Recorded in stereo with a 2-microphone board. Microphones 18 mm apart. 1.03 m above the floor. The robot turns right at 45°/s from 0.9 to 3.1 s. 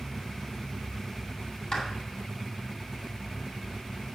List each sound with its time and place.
1.7 s a clap: 35° left (ahead or behind), 6.5 m; by 1.9 s 30° left (ahead or behind), 6.5 m